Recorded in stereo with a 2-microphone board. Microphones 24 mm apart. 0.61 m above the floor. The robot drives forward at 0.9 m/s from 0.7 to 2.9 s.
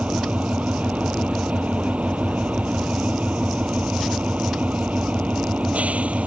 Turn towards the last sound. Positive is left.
turn(degrees=-75)  # may be behind; listen again after turning